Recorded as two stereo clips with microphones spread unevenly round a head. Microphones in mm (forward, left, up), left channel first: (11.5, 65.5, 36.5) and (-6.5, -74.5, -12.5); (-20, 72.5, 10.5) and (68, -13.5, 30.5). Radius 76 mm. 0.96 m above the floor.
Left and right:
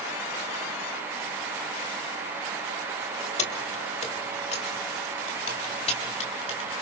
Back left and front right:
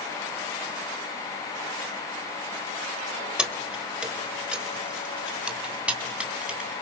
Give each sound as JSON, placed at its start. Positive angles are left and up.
{"t": 3.4, "sound": "keys jangling", "azimuth_deg": 40, "distance_m": 2.5}